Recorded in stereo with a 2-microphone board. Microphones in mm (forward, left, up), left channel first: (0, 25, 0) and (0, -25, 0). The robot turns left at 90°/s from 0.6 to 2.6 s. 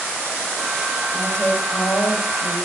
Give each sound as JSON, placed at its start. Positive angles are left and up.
{"t": 1.1, "sound": "a woman speaking", "azimuth_deg": 170, "distance_m": 3.0}